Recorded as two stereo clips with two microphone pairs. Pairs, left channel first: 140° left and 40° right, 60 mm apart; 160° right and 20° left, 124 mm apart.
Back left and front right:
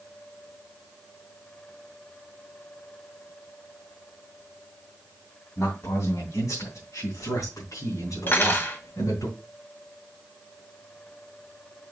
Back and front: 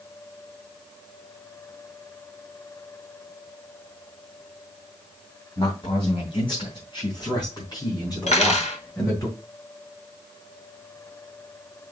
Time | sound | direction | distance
5.6 | a man speaking | 165° left | 3 m
8.3 | cutlery clinking | 170° right | 1.6 m